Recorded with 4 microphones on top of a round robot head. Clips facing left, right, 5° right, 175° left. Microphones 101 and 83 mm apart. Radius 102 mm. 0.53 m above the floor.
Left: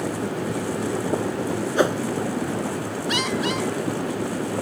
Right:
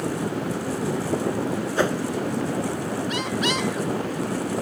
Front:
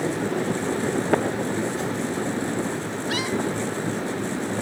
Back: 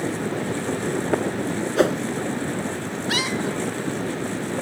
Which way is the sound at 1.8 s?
160° left.